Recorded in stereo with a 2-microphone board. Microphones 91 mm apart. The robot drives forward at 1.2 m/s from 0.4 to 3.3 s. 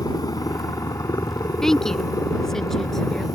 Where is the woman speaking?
5° left (ahead or behind); by 3.3 s centre (ahead or behind).